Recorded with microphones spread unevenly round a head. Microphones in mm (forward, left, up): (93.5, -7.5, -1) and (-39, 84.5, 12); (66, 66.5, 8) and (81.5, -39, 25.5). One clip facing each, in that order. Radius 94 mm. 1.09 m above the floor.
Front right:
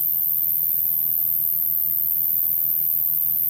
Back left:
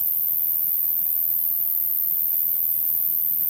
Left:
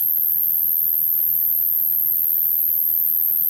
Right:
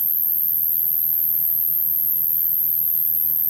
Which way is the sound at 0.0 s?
5° left.